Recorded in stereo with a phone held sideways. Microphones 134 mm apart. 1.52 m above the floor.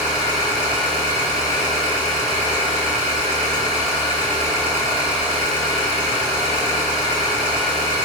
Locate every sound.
0.0 s an engine running: 60° left (ahead or behind), 1.5 m